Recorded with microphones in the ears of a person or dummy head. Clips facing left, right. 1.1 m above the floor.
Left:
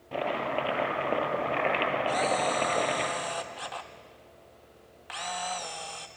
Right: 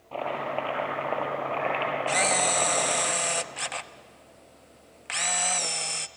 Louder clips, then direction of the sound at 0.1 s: Even; 20° left (ahead or behind).